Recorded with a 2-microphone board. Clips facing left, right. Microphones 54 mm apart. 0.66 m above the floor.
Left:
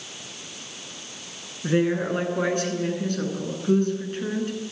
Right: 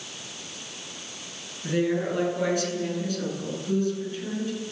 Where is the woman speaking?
35° left (ahead or behind), 9 m; by 4.5 s 55° left (ahead or behind), 9.5 m.